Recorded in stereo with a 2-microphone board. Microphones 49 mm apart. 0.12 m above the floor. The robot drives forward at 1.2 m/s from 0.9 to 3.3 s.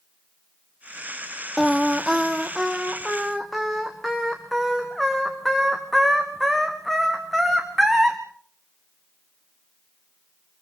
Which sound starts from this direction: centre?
Singing, at 1.6 s.